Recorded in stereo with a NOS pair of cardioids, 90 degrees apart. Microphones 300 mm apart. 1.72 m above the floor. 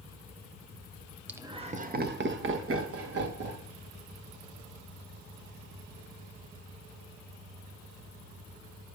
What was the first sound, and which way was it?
Laughter, 5° right.